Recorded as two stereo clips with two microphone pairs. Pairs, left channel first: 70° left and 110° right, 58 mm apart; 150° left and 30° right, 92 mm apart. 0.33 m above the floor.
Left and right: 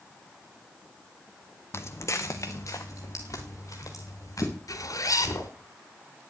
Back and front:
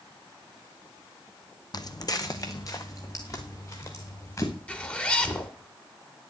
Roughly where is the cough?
I don't hear a cough.